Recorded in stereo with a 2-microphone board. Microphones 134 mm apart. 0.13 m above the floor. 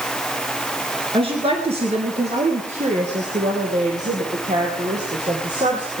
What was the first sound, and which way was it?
A woman speaking, 45° right (ahead or behind).